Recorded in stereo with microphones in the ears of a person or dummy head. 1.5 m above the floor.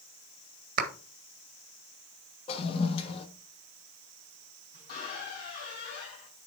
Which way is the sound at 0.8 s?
55° right (ahead or behind).